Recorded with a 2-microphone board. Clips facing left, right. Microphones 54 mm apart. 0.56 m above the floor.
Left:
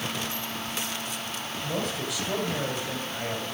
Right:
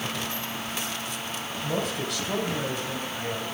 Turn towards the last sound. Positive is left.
turn(degrees=30)  # may be behind; listen again after turning